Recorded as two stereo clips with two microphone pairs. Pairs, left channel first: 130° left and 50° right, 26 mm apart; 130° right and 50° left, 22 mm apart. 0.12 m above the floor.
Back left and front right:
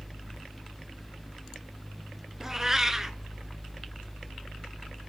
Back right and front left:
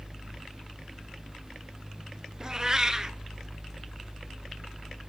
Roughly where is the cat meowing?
Ahead.